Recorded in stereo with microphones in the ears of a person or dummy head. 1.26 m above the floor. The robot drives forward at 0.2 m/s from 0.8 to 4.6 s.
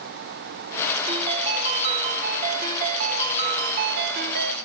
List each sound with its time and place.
1.1 s a ringtone: 30° right (ahead or behind), 1.2 m; by 4.6 s 55° right (ahead or behind), 0.8 m